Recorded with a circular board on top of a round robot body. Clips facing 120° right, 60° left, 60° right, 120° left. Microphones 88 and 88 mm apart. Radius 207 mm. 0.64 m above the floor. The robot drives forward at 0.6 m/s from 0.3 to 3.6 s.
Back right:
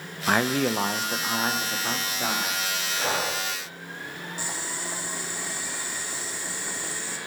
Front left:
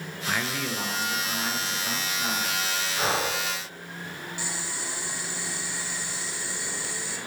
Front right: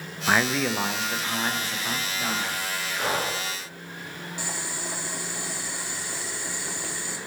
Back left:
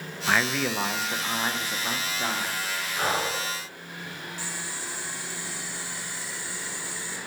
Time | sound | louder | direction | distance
0.3 | a man speaking | back right 7 dB, front right 2 dB | 130° right | 0.6 m
3.0 | breathing | front left 1 dB, back left 1 dB | 75° left | 4.5 m
4.4 | boiling | back right 2 dB, front right 5 dB | 75° right | 1.6 m